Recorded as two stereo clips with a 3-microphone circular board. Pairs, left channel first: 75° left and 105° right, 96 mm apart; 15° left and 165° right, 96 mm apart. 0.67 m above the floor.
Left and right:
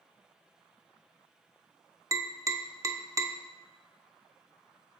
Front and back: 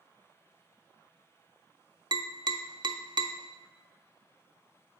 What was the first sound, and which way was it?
Tapping, 150° right.